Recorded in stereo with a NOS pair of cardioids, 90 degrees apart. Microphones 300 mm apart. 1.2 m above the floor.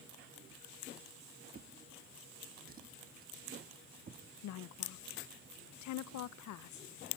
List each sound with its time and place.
1.5 s a drawer: 30° right, 1.2 m
4.4 s a woman speaking: 65° left, 0.7 m